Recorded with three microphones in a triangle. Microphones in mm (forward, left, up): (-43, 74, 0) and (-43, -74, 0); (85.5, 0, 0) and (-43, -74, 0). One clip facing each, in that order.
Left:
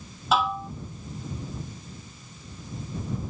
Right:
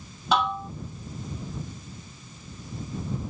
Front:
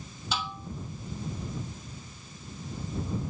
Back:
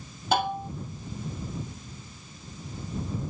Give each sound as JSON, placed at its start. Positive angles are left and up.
{"t": 0.3, "sound": "dishes clattering", "azimuth_deg": 180}